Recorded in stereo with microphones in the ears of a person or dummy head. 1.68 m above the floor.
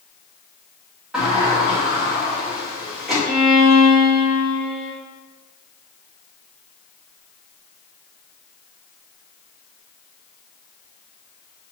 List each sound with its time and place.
1.1 s a sliding door: 5° right (ahead or behind), 1.4 m
3.2 s a violin: 5° right (ahead or behind), 1.7 m